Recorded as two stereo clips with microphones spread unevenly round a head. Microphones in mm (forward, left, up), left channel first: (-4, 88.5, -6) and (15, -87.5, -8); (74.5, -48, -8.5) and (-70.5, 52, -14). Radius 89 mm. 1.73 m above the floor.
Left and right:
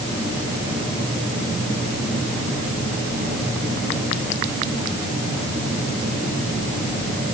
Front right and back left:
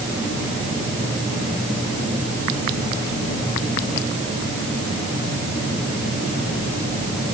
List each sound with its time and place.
Only background noise.